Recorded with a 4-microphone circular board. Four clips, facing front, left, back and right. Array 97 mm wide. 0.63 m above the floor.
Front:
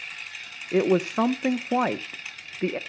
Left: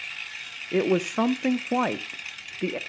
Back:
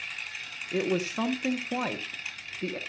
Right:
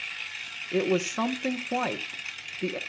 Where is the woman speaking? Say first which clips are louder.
Left 3 dB, front 7 dB; 25° left, 0.8 m.